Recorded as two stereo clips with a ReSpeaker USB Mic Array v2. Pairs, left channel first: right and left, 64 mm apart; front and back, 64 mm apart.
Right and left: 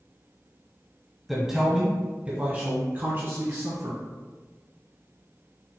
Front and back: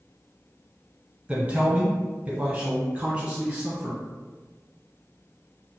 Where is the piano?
No piano in this recording.